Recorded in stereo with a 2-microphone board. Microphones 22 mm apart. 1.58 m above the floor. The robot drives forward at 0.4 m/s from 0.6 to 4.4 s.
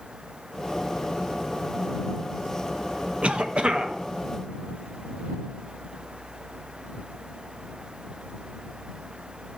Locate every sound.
3.2 s a cough: 60° right (ahead or behind), 0.6 m; by 3.9 s 45° right (ahead or behind), 0.7 m